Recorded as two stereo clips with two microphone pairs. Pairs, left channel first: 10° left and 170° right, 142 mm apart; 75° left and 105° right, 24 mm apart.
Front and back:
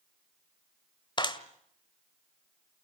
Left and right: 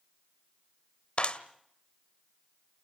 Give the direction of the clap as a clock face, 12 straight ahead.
10 o'clock.